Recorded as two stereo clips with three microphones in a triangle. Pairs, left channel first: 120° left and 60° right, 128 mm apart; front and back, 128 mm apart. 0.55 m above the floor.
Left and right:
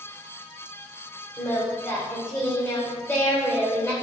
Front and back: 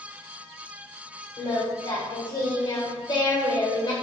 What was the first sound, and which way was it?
Singing, 55° left.